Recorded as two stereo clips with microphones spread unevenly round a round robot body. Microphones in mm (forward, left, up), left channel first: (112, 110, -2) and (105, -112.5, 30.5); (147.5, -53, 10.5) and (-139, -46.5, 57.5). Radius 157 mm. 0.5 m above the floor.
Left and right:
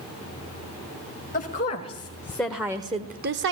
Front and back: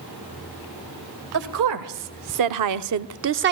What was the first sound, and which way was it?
A woman speaking, 145° left.